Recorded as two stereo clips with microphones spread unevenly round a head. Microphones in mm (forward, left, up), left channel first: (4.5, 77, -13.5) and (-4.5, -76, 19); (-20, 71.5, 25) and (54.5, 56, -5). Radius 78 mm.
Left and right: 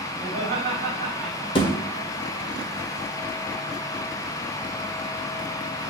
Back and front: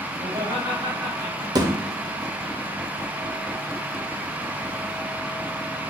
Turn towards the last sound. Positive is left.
turn(degrees=30)